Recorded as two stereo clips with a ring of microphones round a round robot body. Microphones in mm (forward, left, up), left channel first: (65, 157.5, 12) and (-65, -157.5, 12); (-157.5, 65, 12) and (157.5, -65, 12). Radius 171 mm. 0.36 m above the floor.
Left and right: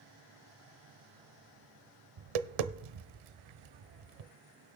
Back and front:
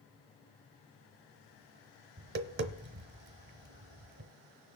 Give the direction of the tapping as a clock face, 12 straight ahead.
3 o'clock.